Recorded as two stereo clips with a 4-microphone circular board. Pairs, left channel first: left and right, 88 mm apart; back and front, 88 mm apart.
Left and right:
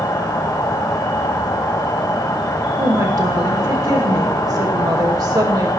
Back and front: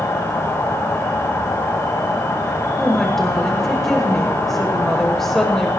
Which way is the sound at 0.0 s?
125° left.